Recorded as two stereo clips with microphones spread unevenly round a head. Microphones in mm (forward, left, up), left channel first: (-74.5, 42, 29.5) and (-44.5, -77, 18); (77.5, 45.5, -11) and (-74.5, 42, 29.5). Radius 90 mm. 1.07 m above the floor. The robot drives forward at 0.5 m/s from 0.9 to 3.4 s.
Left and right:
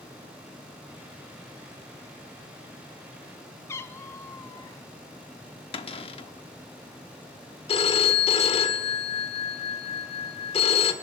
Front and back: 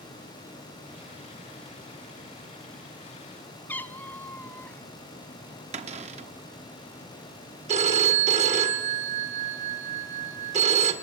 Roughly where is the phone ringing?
Behind left.